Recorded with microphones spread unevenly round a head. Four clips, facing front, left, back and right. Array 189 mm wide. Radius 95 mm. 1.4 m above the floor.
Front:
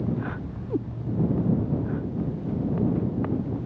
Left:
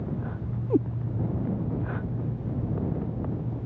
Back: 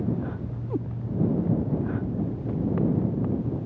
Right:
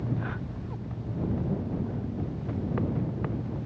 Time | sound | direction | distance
0.7 | a cat meowing | 70° left | ?